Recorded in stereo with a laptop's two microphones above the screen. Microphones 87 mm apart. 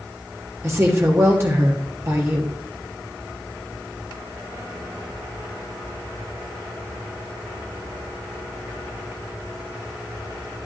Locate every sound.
0.6 s a woman speaking: 30° right (ahead or behind), 1.2 m